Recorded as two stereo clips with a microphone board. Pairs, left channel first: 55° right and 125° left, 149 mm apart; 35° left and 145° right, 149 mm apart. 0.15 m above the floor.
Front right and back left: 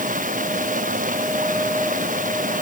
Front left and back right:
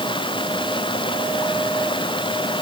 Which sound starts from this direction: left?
Running water, at 0.0 s.